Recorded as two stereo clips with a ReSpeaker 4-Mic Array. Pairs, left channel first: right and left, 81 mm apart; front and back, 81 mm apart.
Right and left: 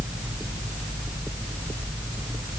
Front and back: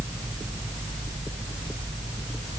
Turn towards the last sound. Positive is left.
No sound to turn to.